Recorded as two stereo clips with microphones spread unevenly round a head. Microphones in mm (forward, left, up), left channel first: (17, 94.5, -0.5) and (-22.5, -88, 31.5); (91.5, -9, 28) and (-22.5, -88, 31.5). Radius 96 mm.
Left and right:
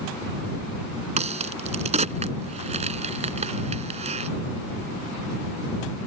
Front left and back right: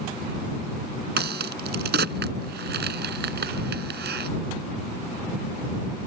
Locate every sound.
1.2 s a crack: 160° right